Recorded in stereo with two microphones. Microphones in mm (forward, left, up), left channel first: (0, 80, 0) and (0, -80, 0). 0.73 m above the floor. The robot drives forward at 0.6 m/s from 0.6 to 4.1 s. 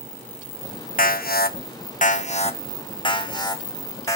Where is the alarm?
65° left (ahead or behind), 0.7 m; by 4.2 s 20° left (ahead or behind), 1.8 m.